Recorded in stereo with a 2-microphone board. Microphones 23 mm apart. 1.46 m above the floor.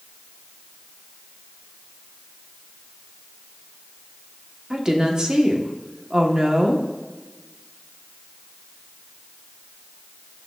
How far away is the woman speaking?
About 1.3 m.